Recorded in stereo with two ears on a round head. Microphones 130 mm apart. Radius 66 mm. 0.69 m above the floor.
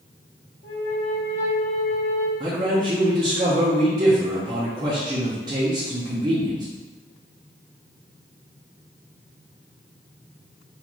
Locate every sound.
0.6 s a flute: 50° left (ahead or behind), 0.8 m
2.4 s a man speaking: 30° right (ahead or behind), 0.6 m